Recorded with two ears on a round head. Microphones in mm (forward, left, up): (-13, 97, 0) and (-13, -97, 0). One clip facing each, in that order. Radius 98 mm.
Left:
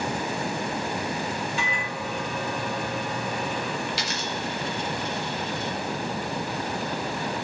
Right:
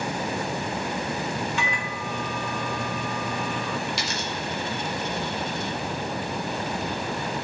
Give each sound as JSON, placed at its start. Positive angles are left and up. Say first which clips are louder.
{"t": 1.6, "sound": "a microwave", "louder": "even", "side_deg": -55, "distance_m": 1.6}
{"t": 3.9, "sound": "a dropped coin", "louder": "even", "side_deg": -75, "distance_m": 1.0}